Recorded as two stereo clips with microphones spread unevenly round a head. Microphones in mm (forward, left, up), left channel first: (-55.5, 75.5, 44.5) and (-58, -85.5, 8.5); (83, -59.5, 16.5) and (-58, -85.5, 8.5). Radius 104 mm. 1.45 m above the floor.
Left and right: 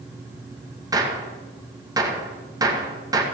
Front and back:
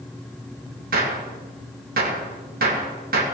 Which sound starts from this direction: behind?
A gunshot, at 0.9 s.